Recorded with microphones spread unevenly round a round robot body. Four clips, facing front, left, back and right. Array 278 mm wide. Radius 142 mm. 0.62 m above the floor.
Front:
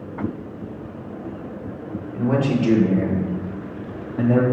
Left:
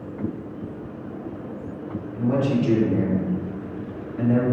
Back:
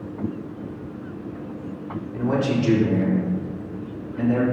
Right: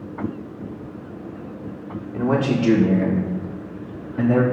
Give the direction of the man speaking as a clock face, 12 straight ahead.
3 o'clock.